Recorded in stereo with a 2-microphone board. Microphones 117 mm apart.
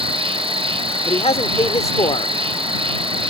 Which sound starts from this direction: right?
An insect, at 0.0 s.